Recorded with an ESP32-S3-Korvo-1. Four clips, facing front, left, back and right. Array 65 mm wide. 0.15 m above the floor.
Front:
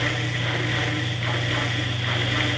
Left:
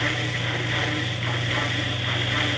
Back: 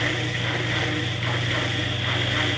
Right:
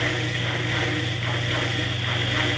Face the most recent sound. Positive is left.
No sound to turn to.